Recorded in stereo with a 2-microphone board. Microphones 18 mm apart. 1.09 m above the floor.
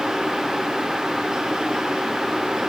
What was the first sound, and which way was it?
Only background noise.